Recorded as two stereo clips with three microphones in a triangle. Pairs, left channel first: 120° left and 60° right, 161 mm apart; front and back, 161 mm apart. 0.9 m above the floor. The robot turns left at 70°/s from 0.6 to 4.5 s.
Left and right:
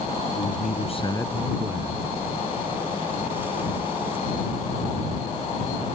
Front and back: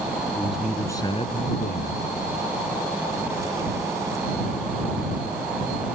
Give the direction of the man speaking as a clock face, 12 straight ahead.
9 o'clock.